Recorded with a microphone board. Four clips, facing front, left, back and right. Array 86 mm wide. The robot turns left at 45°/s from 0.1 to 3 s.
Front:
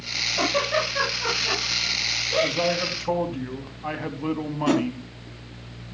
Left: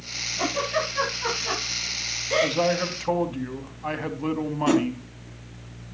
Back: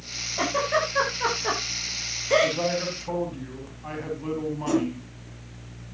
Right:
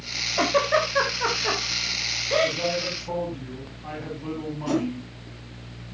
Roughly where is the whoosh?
Ahead left.